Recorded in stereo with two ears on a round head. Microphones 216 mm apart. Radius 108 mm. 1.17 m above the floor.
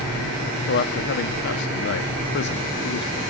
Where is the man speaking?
50° left (ahead or behind), 0.5 m.